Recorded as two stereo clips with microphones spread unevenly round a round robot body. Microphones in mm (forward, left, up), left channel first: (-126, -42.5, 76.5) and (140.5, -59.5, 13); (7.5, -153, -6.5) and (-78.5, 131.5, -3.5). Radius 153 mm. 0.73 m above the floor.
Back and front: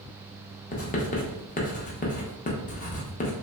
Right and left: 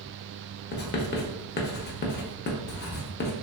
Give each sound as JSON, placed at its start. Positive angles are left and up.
{"t": 0.7, "sound": "writing", "azimuth_deg": -130, "distance_m": 0.5}